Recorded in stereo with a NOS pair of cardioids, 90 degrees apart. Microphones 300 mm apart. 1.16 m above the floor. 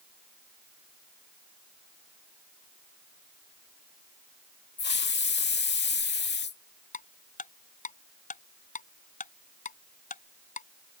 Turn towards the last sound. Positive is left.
turn(degrees=30)